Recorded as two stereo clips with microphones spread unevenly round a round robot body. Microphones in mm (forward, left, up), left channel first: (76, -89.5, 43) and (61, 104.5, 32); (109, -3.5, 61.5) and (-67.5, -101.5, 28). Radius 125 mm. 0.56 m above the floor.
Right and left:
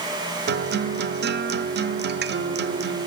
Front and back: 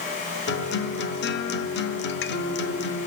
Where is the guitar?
70° left, 0.8 m.